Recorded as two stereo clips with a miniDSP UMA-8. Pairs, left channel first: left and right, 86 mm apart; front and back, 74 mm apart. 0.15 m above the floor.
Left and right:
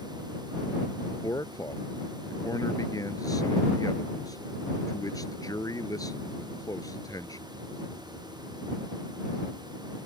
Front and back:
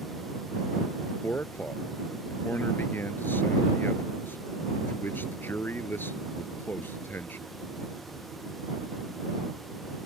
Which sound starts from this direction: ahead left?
A man speaking, at 1.1 s.